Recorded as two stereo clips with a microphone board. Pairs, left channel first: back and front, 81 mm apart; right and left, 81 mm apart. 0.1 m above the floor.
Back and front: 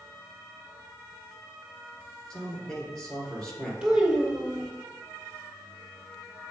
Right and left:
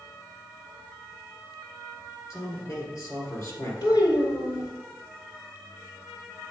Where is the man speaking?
100° right, 2.5 m.